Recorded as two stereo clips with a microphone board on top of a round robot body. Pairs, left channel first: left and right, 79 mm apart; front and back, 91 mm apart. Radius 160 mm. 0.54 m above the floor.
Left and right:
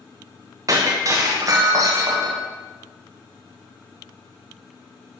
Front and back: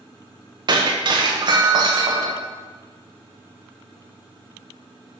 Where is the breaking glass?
140° right, 1.1 m.